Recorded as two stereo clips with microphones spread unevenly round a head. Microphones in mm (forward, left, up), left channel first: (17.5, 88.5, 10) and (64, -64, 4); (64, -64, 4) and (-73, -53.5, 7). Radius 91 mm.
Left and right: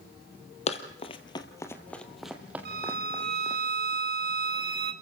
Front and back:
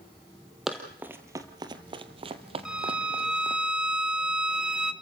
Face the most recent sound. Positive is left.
turn(degrees=-100)